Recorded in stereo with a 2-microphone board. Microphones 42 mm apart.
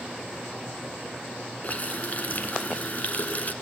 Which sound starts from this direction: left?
A running tap, at 1.6 s.